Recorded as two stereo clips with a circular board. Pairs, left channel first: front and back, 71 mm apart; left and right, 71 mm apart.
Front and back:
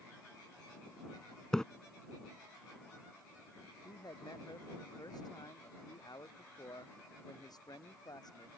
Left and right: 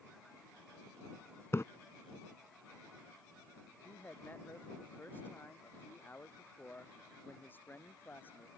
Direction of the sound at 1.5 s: 75° left.